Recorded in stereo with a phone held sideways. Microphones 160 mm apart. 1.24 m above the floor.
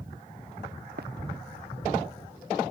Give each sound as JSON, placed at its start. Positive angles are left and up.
{"t": 1.0, "sound": "running footsteps", "side_deg": -80}